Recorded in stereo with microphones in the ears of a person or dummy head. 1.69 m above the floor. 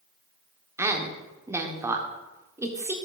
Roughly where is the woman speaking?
Centre.